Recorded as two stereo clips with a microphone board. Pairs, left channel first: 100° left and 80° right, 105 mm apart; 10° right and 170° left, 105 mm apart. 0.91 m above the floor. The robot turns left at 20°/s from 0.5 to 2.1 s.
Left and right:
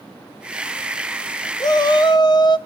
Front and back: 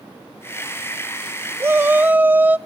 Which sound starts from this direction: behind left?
A shout, at 1.6 s.